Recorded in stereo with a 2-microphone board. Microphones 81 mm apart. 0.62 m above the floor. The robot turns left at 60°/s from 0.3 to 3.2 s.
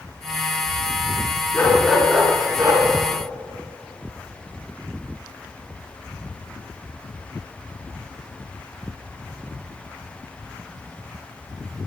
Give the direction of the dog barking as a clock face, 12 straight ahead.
11 o'clock.